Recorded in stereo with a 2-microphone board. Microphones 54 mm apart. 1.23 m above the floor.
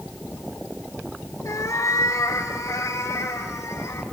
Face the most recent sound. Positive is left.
turn(degrees=70)  # may be behind; listen again after turning